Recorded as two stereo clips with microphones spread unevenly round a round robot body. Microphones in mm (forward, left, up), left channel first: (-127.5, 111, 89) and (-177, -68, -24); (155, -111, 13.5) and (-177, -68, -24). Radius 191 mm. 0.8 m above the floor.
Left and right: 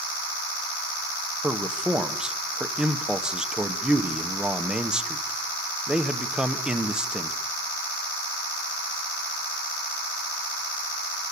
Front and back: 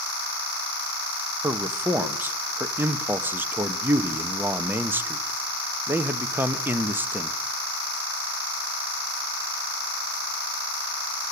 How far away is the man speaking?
About 0.9 m.